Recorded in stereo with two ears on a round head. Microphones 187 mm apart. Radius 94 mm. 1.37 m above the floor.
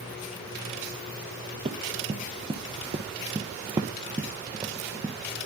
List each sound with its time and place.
1.6 s running footsteps: 25° right (ahead or behind), 1.7 m; by 5.2 s 10° right (ahead or behind), 1.7 m